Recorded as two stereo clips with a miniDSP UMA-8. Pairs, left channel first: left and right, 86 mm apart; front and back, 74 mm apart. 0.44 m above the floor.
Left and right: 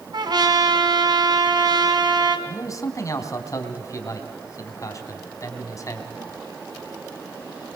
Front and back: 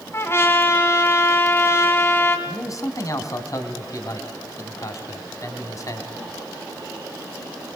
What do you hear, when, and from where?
0.1 s a trumpet: 55° right, 2.5 m
2.5 s a man speaking: 40° left, 3 m